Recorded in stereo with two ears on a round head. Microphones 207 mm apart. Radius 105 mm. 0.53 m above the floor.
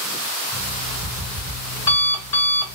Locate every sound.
0.5 s an alarm clock: 20° left (ahead or behind), 3.5 m